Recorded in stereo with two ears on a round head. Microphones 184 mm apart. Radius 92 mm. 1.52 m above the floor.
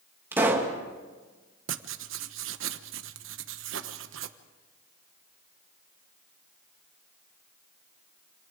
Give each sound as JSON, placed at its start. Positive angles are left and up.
{"t": 0.3, "sound": "a pop", "side_deg": -10, "distance_m": 2.5}
{"t": 1.7, "sound": "writing", "side_deg": -75, "distance_m": 1.2}